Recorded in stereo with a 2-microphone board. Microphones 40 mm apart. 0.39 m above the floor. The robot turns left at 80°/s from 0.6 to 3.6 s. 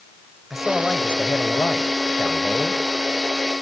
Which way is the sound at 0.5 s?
175° right.